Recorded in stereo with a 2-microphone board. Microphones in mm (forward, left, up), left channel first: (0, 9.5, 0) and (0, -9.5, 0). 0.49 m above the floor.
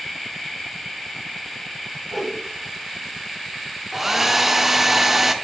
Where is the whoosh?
Centre (ahead or behind), 1.7 m.